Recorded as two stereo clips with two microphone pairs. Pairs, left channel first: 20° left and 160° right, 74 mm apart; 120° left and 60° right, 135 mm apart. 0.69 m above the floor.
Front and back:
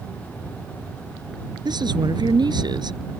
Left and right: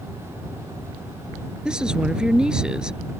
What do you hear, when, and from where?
1.6 s a woman speaking: 140° right